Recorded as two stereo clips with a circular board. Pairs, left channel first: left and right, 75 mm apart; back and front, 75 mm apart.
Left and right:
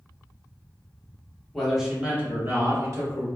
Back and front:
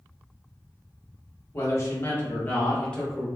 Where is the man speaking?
175° left, 0.9 m; by 3.3 s 100° right, 1.2 m.